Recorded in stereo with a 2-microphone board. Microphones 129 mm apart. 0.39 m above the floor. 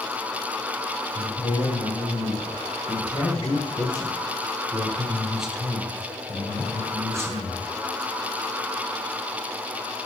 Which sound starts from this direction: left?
A man speaking, at 1.1 s.